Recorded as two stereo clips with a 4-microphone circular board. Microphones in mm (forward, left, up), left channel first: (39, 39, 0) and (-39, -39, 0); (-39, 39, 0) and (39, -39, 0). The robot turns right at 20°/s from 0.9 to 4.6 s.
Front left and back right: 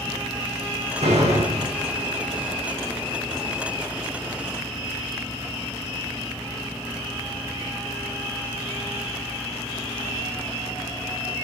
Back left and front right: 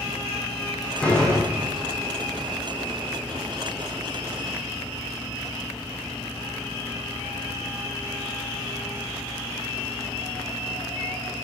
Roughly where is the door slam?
Behind right.